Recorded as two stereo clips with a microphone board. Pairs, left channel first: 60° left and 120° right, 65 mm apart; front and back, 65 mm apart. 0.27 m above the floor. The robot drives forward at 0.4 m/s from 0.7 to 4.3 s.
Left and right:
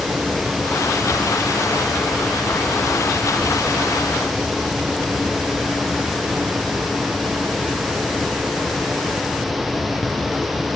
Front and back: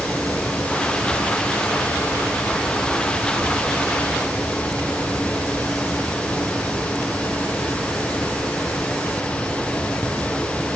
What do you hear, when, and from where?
Only background noise.